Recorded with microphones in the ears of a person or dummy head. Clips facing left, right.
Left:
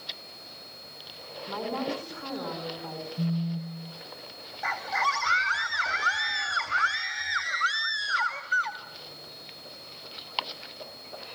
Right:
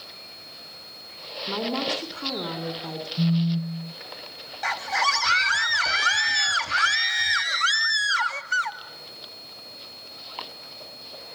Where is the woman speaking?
45° right (ahead or behind), 4 m.